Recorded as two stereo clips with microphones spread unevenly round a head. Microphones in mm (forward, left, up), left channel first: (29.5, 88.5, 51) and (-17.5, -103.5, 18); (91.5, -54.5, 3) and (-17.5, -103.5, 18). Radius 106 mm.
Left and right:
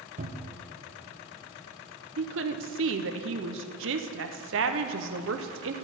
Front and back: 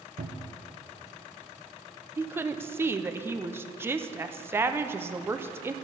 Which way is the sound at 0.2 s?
160° right.